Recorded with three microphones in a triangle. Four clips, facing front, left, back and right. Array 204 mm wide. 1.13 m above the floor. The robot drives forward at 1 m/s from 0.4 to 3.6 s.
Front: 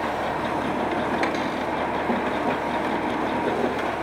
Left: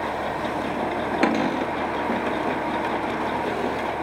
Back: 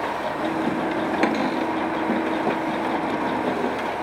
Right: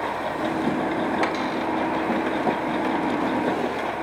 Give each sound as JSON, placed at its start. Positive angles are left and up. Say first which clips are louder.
{"t": 1.2, "sound": "a cupboard door", "louder": "left 3 dB, back 3 dB", "azimuth_deg": 120, "distance_m": 2.0}